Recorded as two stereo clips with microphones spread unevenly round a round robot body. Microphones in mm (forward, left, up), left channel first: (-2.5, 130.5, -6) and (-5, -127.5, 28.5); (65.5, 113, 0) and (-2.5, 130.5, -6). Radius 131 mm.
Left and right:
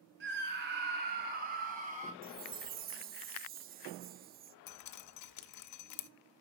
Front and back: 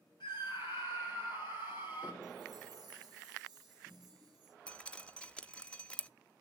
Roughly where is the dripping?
Ahead left.